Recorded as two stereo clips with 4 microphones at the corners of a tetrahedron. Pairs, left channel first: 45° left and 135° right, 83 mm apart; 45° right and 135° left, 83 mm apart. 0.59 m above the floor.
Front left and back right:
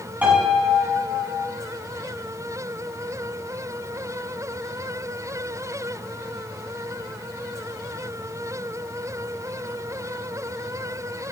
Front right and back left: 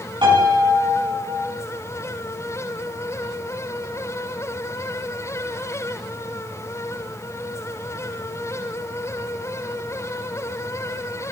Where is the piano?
155° left, 5 m.